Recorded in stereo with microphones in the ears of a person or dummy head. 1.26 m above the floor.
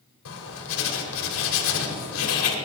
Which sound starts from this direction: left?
Writing, at 0.2 s.